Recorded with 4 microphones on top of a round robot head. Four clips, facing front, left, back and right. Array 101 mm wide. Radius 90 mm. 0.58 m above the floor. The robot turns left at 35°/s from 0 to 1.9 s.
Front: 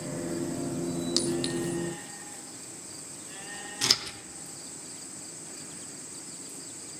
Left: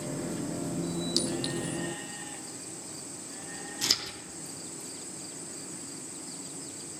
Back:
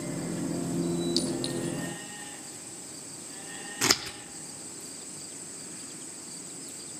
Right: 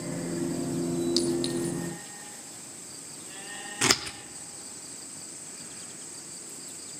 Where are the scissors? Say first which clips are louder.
Right 12 dB, back 6 dB; 130° right, 0.9 m.